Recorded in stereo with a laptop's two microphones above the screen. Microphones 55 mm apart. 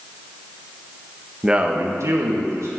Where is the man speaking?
5° right (ahead or behind), 0.8 m; by 2.7 s 80° right, 1.7 m.